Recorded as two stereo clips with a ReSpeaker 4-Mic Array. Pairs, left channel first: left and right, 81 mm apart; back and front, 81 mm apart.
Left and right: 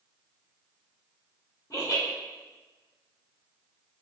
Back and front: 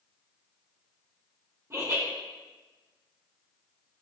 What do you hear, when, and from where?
1.7 s laughter: 50° left, 1.7 m